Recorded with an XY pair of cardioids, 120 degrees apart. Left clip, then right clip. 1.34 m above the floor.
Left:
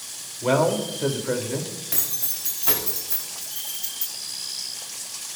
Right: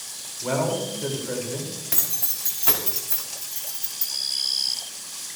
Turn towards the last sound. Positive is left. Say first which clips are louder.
# right 1 dB
turn(degrees=-15)